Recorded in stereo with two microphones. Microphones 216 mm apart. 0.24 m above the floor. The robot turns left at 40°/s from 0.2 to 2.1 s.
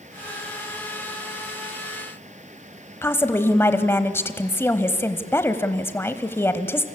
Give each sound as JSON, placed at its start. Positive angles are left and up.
{"t": 3.0, "sound": "a woman speaking", "side_deg": 10, "distance_m": 1.1}